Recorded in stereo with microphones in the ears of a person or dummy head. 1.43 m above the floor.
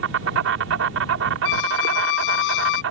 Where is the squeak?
75° left (ahead or behind).